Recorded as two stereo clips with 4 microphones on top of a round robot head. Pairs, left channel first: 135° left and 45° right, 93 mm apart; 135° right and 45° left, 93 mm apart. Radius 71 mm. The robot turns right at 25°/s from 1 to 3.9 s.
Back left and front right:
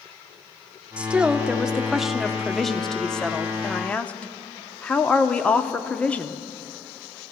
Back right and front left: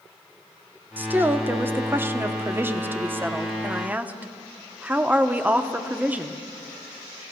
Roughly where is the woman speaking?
Ahead.